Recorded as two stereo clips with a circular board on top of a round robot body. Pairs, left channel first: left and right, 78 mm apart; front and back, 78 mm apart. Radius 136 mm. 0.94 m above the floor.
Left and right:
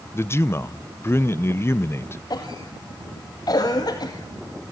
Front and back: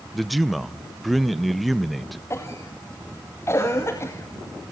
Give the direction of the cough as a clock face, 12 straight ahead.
10 o'clock.